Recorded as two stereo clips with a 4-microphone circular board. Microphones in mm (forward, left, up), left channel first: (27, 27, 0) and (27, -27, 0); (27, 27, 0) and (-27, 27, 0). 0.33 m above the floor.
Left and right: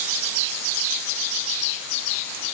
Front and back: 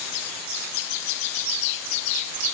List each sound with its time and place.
Only background noise.